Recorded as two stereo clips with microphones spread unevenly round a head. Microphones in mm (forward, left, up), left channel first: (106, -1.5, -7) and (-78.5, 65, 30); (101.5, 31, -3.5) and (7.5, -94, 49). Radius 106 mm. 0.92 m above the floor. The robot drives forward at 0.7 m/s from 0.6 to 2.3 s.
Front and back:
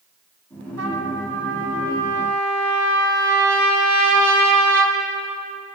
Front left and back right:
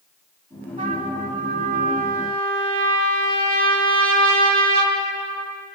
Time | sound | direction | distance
0.8 | a trumpet | 170° left | 4 m